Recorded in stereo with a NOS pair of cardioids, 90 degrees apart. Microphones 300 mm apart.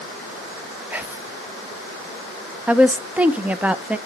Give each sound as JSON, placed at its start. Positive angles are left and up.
{"t": 0.9, "sound": "whispering", "azimuth_deg": -5, "distance_m": 0.5}
{"t": 2.7, "sound": "a woman speaking", "azimuth_deg": -5, "distance_m": 0.7}